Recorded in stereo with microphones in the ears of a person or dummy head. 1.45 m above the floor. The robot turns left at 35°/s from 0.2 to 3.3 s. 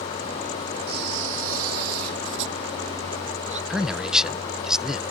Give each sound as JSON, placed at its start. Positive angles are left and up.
{"t": 0.9, "sound": "a camera shutter", "azimuth_deg": -55}
{"t": 3.7, "sound": "a man speaking", "side_deg": 0}